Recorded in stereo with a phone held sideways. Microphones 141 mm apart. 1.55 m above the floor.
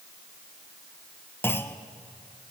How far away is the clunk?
About 1.0 m.